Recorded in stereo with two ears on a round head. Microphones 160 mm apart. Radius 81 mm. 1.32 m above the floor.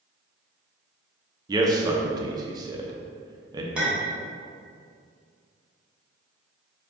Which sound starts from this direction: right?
A man speaking, at 1.5 s.